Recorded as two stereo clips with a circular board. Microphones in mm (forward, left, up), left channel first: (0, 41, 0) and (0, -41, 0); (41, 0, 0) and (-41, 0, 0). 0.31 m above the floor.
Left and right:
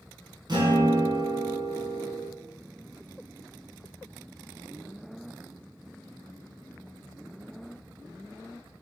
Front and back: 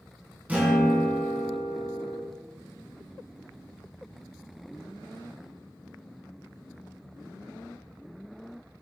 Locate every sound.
0.5 s a guitar: 110° right, 2.5 m